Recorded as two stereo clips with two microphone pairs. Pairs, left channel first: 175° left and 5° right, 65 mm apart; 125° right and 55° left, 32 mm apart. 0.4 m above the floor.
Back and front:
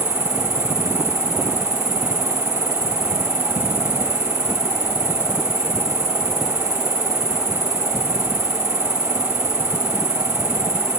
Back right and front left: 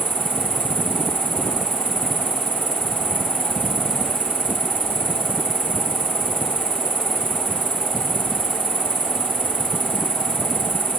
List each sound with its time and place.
0.0 s an insect: 20° left, 7.5 m